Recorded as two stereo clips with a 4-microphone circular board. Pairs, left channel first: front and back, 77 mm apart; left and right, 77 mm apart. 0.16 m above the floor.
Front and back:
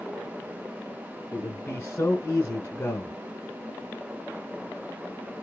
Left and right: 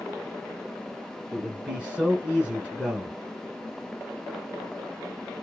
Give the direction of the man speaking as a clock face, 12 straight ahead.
1 o'clock.